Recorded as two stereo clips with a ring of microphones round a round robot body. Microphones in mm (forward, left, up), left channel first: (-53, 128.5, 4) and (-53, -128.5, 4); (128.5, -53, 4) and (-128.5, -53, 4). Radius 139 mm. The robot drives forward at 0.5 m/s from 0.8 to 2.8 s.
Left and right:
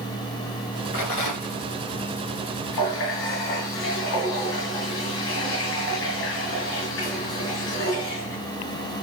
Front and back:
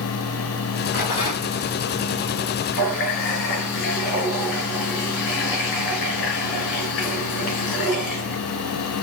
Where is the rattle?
65° left, 3.5 m; by 1.6 s 70° left, 3 m.